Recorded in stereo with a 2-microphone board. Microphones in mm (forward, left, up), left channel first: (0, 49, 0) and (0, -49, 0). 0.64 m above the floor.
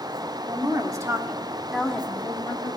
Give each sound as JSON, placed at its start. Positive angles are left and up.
{"t": 0.5, "sound": "a woman speaking", "side_deg": -45, "distance_m": 1.8}